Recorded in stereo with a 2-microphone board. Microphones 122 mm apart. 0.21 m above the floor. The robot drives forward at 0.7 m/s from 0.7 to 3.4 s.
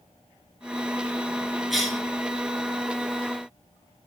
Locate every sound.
1.7 s a cough: centre (ahead or behind), 2.5 m